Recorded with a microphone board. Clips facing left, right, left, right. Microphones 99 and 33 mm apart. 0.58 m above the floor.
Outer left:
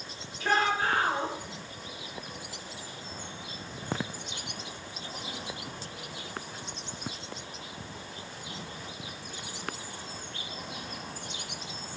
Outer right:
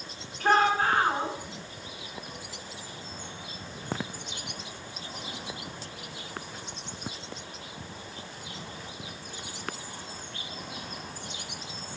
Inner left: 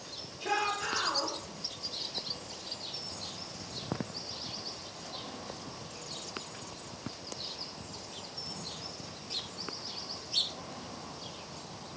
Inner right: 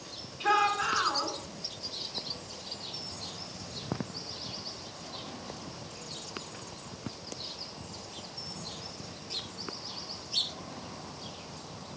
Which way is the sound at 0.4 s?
55° right (ahead or behind).